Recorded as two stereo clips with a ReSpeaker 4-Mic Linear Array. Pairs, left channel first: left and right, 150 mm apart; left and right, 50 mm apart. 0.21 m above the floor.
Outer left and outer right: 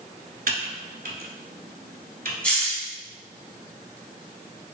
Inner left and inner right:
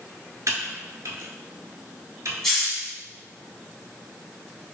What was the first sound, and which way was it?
Typing on a keyboard, 70° right (ahead or behind).